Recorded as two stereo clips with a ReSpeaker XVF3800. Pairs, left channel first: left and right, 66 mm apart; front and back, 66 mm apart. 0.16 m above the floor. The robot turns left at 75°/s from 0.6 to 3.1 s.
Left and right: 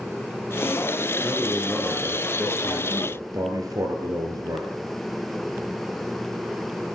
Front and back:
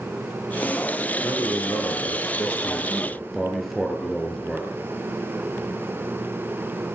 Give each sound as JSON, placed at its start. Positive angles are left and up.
{"t": 1.2, "sound": "a man speaking", "azimuth_deg": 50, "distance_m": 3.0}